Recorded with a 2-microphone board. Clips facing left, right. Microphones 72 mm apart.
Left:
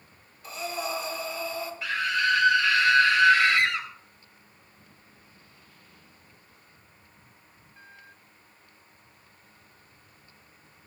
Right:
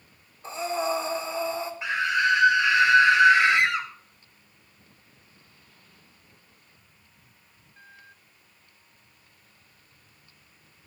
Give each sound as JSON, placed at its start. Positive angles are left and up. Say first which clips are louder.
{"t": 0.4, "sound": "breathing", "louder": "right 5 dB", "side_deg": -30, "distance_m": 1.2}
{"t": 1.8, "sound": "a scream", "louder": "right 2 dB", "side_deg": -20, "distance_m": 1.4}